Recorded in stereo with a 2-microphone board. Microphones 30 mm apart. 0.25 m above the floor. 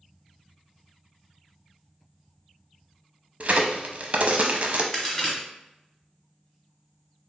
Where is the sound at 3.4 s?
50° right (ahead or behind), 0.6 m.